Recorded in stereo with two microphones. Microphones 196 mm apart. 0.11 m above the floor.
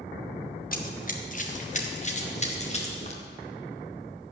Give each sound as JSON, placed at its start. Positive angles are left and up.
{"t": 0.7, "sound": "running footsteps", "side_deg": 45, "distance_m": 1.7}